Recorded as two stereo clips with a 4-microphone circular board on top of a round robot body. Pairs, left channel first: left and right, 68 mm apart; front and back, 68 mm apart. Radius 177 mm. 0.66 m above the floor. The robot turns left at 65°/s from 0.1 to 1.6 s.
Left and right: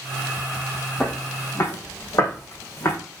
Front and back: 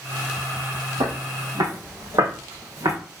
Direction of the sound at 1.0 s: Straight behind.